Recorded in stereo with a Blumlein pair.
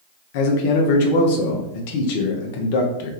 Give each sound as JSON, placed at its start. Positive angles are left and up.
{"t": 0.3, "sound": "a man speaking", "azimuth_deg": 50, "distance_m": 0.6}